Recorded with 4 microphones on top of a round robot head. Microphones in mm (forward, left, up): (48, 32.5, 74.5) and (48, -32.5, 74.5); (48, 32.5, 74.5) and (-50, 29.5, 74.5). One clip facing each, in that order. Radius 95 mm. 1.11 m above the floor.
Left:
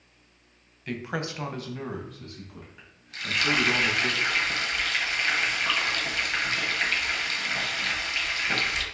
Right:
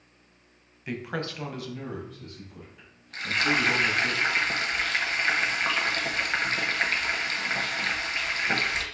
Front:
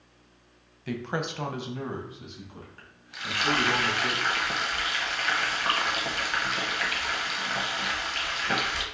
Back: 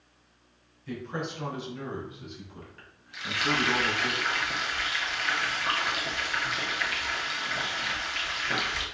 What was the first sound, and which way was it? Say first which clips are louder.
A woman speaking: left 1 dB, front 3 dB; 15° right.